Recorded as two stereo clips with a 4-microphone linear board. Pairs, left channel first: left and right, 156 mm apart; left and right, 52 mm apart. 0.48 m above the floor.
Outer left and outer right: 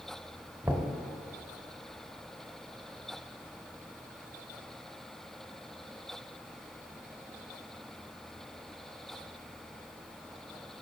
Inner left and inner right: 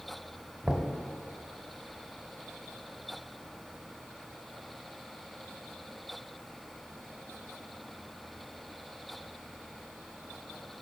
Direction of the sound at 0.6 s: 10° right (ahead or behind).